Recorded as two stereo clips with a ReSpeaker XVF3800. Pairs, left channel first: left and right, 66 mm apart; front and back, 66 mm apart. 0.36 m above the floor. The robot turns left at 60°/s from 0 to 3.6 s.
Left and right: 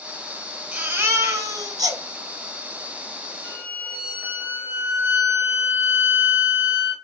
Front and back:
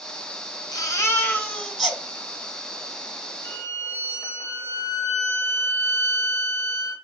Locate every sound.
0.7 s a baby crying: 25° right, 1.0 m; by 2.0 s 100° right, 1.0 m
3.4 s a violin: 30° right, 0.9 m; by 6.9 s 35° right, 0.9 m